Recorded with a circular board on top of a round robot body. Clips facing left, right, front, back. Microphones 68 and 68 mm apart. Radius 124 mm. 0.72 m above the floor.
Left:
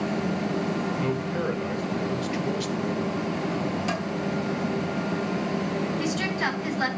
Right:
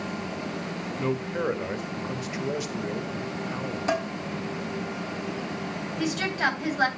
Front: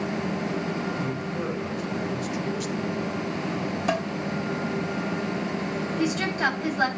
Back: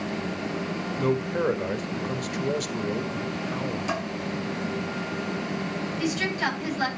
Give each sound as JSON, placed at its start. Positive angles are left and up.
{"t": 1.0, "sound": "a man speaking", "azimuth_deg": -160, "distance_m": 1.5}
{"t": 3.9, "sound": "dishes clattering", "azimuth_deg": -40, "distance_m": 4.5}
{"t": 6.0, "sound": "a woman speaking", "azimuth_deg": -50, "distance_m": 9.5}